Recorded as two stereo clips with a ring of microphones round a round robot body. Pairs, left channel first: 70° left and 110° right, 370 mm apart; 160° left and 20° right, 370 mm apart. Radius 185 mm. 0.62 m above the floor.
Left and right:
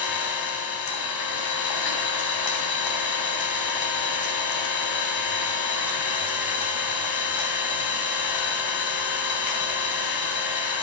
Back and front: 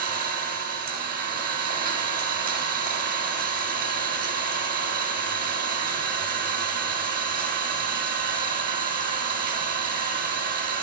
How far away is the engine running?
About 3 m.